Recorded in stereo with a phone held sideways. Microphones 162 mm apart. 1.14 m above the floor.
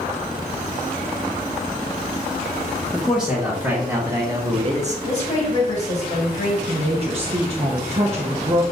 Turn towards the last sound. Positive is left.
turn(degrees=-40)  # may be behind; listen again after turning